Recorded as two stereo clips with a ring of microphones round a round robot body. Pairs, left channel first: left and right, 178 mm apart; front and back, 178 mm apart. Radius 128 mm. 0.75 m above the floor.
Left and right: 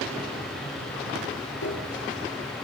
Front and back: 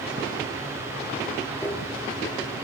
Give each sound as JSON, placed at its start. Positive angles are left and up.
{"t": 1.6, "sound": "a piano", "azimuth_deg": 75, "distance_m": 5.0}